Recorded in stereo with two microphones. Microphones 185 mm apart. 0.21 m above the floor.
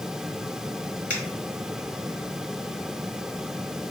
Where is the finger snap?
10° left (ahead or behind), 2 m.